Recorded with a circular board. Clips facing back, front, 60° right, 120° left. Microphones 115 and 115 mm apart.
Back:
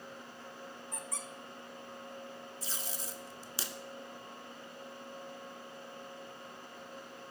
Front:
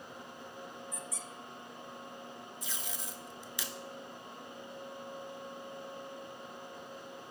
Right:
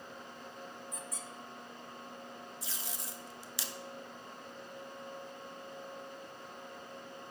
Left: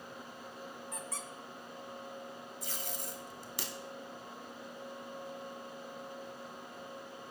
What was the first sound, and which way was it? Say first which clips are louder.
A squeak: even, left 2 dB; 145° left.